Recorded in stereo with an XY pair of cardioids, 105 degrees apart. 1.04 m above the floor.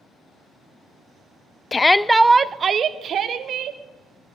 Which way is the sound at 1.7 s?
30° left.